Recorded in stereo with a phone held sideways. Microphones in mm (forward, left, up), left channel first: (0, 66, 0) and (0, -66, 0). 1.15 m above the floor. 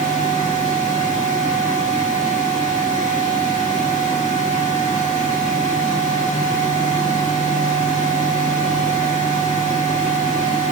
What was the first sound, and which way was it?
A fan, 70° left (ahead or behind).